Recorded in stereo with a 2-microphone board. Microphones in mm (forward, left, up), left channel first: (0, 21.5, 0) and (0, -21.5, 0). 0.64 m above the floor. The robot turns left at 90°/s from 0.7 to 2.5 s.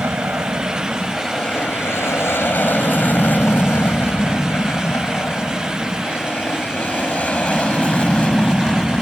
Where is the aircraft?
45° right (ahead or behind); by 9.0 s 25° left (ahead or behind).